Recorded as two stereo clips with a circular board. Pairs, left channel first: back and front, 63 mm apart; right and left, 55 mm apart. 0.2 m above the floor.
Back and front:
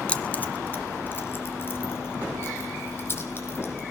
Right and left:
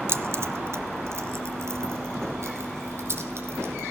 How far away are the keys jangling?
About 1.4 m.